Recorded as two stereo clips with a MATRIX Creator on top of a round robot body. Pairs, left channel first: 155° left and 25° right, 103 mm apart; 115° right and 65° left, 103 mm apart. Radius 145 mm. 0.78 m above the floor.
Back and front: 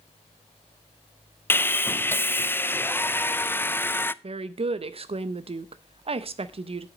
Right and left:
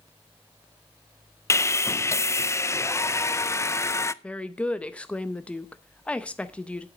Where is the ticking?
No ticking in this recording.